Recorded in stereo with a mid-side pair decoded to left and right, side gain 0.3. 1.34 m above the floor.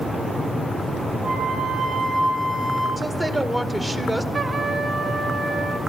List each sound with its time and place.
1.2 s a flute: 70° right, 6.5 m
3.0 s a woman speaking: 20° right, 1.8 m
4.3 s a trumpet: 50° right, 1.3 m